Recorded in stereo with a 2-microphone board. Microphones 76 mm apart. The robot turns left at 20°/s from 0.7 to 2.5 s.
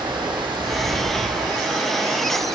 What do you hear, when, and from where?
0.0 s running water: 105° right, 4.5 m; by 2.6 s 140° right, 4.5 m